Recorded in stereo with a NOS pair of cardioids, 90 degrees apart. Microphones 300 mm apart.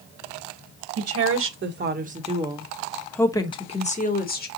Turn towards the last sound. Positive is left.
turn(degrees=35)